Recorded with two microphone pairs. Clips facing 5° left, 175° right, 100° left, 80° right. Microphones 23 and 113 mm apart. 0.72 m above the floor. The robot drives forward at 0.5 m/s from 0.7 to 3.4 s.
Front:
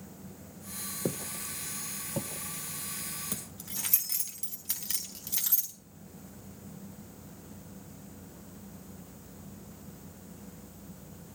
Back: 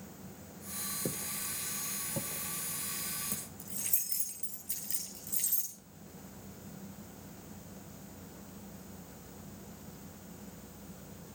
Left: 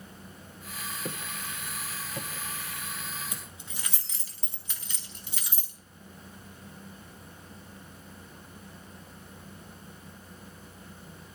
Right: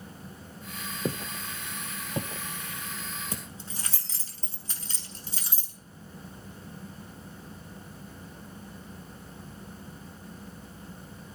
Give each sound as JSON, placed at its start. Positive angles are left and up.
{"t": 1.1, "sound": "footsteps", "azimuth_deg": -35, "distance_m": 1.0}
{"t": 3.3, "sound": "keys jangling", "azimuth_deg": -25, "distance_m": 4.0}